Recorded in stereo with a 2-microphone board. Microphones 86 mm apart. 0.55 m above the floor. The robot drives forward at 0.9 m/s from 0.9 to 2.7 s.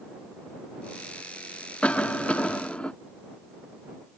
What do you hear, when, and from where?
1.8 s a cough: 15° left (ahead or behind); by 2.9 s 10° left (ahead or behind)